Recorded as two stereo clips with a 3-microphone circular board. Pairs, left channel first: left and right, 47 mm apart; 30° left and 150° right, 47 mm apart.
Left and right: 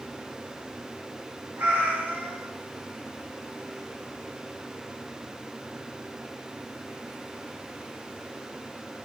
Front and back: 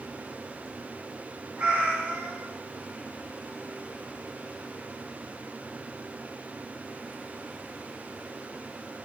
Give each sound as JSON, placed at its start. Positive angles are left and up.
{"t": 1.6, "sound": "a cat meowing", "azimuth_deg": -110, "distance_m": 1.3}